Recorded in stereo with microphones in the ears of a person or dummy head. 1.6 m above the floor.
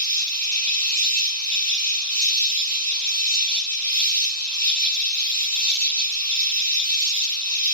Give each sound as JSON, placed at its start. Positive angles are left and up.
{"t": 0.0, "sound": "an insect", "side_deg": -35, "distance_m": 2.5}